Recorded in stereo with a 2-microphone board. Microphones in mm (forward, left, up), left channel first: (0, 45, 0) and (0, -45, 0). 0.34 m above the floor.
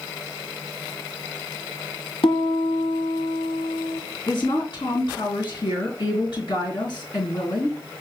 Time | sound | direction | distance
2.2 | a piano | 75° left (ahead or behind) | 1.2 m
4.3 | a woman speaking | 60° left (ahead or behind) | 3.5 m